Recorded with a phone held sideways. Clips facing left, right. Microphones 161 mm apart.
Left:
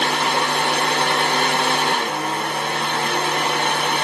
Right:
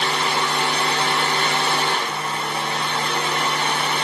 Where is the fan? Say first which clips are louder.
Left 2 dB; 60° left (ahead or behind), 1.7 m.